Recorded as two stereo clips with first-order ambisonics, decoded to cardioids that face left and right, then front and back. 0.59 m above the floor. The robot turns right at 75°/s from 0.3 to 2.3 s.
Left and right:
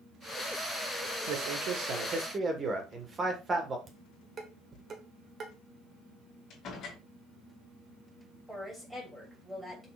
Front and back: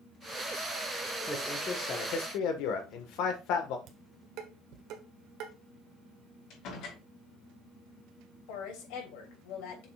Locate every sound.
1.3 s a man speaking: 95° right, 1.7 m; by 3.8 s 20° right, 1.7 m
3.9 s dishes clattering: 155° right, 1.5 m
6.5 s a door slam: 35° left, 3.5 m
8.5 s a woman speaking: straight ahead, 3 m